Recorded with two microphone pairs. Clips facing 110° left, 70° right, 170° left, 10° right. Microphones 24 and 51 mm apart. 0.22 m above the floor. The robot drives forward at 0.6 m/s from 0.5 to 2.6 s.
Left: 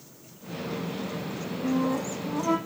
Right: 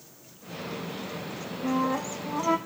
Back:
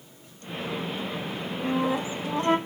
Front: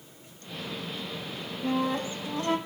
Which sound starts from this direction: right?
A flute, at 1.6 s.